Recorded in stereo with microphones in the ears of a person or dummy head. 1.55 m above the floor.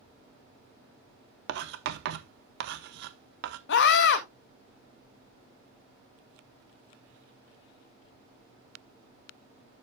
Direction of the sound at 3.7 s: 70° left (ahead or behind).